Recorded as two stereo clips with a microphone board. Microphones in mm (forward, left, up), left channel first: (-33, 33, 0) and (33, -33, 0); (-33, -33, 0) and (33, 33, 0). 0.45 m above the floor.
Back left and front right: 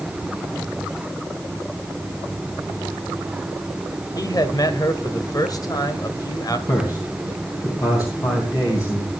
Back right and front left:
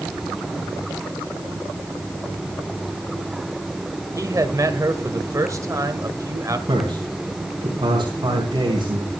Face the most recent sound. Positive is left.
turn(degrees=85)